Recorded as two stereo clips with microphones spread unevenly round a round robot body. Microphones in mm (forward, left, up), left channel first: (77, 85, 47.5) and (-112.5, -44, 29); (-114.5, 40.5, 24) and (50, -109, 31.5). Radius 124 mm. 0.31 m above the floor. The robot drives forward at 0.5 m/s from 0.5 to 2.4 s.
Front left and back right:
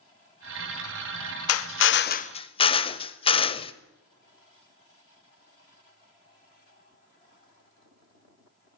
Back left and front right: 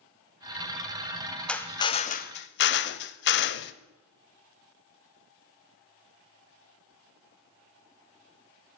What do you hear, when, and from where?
1.5 s a drill: 55° left, 0.6 m; by 3.7 s 105° left, 0.5 m